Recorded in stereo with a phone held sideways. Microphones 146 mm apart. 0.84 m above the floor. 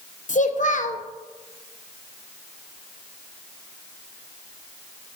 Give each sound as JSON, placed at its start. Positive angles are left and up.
{"t": 0.3, "sound": "a child speaking", "side_deg": 60, "distance_m": 0.6}